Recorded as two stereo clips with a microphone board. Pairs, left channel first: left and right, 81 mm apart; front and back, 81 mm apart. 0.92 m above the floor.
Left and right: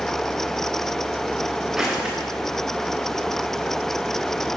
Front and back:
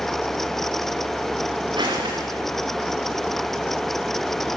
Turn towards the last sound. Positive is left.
turn(degrees=-175)